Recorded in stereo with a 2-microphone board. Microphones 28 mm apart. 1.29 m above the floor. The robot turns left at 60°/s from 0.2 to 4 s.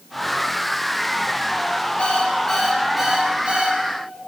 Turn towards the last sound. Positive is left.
turn(degrees=-75)